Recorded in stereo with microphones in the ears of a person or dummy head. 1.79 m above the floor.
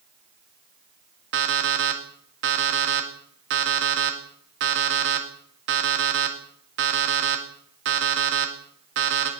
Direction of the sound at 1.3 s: 60° right (ahead or behind).